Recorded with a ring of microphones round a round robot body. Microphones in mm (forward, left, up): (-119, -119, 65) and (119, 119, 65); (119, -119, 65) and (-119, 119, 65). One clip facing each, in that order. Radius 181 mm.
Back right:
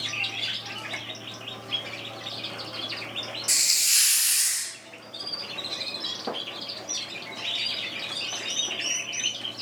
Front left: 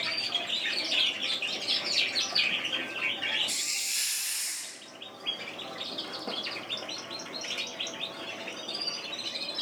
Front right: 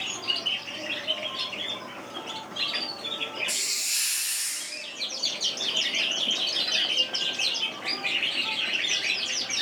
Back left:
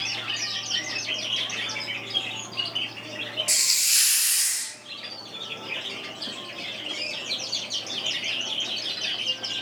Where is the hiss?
Straight behind, 0.6 m.